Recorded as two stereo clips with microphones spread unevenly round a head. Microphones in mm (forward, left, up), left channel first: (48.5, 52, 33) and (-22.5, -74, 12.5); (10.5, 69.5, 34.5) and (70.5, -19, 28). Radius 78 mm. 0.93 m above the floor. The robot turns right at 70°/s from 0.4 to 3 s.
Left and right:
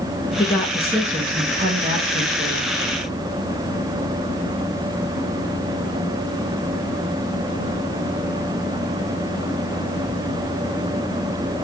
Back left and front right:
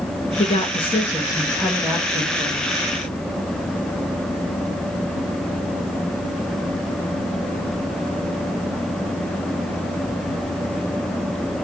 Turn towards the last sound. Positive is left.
turn(degrees=-50)